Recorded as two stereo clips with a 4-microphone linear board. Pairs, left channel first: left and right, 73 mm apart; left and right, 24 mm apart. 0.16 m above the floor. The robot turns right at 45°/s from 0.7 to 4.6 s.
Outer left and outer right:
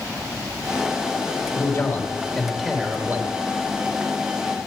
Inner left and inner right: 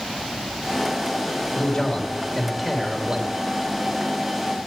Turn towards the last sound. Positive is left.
turn(degrees=-85)